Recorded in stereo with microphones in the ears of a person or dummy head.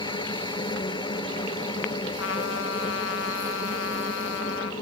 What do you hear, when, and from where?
0.0 s a machine running: 25° left (ahead or behind)
2.2 s a trumpet: 70° left (ahead or behind)